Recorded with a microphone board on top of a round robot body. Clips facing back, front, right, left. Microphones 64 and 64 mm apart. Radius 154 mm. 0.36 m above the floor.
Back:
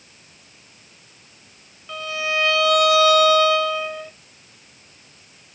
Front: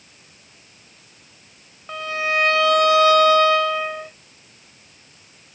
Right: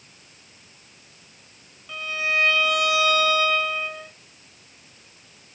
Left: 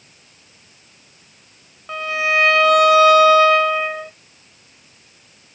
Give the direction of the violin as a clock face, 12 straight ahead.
10 o'clock.